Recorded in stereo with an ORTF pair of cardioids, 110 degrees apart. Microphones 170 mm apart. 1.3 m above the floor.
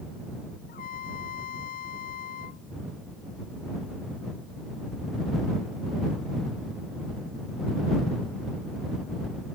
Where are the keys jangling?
I don't hear keys jangling.